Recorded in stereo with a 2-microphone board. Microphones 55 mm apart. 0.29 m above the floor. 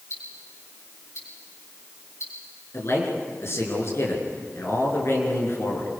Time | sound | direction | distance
0.1 | ticking | 65° left (ahead or behind) | 4.5 m
2.7 | a man speaking | 55° left (ahead or behind) | 5 m